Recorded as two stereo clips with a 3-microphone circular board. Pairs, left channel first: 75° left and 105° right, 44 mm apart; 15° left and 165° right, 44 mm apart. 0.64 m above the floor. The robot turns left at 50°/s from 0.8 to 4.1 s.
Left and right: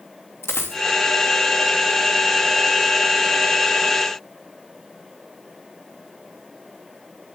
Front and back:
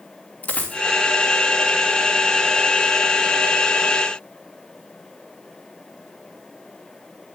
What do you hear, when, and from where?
0.4 s a dropped coin: 70° left, 3 m